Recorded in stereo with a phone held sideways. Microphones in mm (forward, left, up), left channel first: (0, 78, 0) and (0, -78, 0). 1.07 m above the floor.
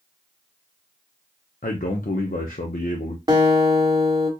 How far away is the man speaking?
About 0.6 m.